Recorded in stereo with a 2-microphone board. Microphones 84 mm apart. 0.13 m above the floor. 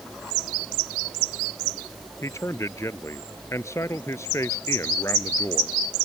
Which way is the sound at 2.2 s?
35° left (ahead or behind).